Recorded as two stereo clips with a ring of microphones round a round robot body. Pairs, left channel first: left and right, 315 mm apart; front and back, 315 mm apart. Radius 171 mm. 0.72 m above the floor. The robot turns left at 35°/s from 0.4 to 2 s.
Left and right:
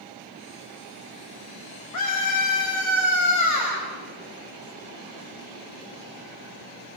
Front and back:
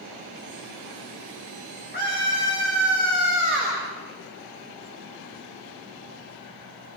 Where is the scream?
65° left, 4.5 m; by 3.8 s 60° left, 4.5 m.